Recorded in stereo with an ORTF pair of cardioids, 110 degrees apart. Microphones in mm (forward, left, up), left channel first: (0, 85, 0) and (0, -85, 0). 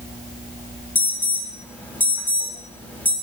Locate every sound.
0.9 s an alarm: 10° left, 6.5 m